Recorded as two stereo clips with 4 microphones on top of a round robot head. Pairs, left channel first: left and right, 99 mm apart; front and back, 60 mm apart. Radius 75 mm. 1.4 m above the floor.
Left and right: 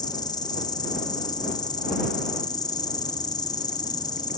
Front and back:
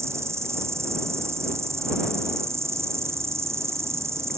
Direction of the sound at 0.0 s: 140° left.